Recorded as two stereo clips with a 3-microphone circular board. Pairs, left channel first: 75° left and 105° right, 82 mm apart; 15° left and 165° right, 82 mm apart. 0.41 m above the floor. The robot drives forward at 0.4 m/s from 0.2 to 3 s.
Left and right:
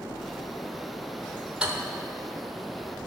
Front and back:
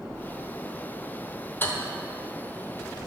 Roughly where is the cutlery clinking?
Ahead right.